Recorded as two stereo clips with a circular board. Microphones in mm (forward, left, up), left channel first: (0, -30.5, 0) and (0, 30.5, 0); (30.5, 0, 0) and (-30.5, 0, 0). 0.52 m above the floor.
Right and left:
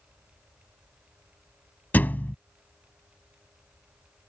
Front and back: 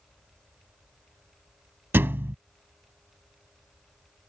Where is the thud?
140° right.